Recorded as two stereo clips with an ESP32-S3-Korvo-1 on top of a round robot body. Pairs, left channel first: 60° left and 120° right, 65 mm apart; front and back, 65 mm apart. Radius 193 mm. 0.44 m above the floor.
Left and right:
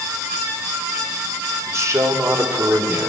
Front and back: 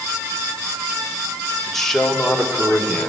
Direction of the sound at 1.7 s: 85° right.